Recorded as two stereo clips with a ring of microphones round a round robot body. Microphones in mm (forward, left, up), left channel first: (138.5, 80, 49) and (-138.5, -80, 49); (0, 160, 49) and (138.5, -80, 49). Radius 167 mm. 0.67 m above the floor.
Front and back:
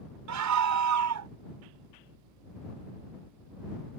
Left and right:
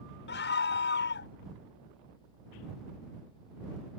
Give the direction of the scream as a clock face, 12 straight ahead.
6 o'clock.